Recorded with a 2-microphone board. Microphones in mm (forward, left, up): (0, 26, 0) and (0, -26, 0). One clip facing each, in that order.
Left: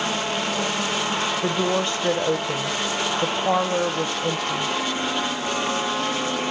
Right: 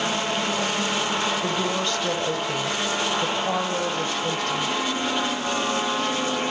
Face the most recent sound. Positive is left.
turn(degrees=25)  # may be behind; listen again after turning